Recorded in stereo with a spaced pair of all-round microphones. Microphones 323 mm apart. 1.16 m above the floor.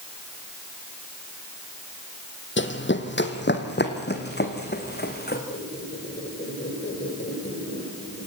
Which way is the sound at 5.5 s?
35° left (ahead or behind).